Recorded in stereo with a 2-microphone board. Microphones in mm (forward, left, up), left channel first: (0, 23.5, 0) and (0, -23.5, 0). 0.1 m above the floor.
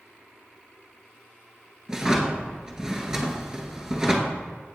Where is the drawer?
15° right (ahead or behind), 0.7 m.